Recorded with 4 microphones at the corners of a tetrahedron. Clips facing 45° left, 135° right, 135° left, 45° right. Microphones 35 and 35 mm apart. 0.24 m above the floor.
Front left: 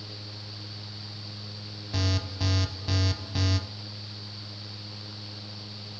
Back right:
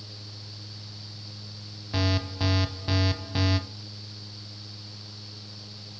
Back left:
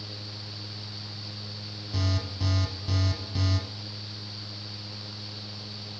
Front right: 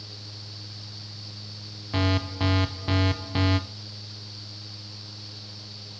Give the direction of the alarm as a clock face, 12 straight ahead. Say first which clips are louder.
Back right 3 dB, front right 7 dB; 2 o'clock.